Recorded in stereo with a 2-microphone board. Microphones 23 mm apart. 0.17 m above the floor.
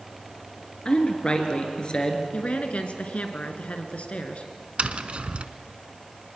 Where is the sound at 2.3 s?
55° left (ahead or behind), 1.9 m.